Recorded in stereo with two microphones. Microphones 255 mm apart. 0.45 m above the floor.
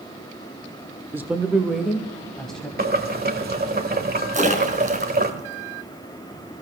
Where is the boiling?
35° right (ahead or behind), 1.7 m.